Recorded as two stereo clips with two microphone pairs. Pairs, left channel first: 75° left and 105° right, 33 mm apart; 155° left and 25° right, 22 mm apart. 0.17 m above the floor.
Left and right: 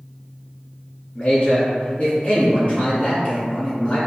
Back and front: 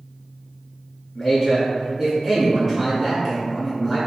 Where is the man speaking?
45° left, 1.5 m.